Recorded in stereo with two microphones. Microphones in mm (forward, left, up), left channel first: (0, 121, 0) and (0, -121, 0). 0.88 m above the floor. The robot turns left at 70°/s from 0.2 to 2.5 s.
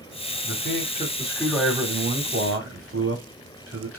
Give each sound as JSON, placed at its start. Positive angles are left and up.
{"t": 0.4, "sound": "a man speaking", "azimuth_deg": 75, "distance_m": 2.5}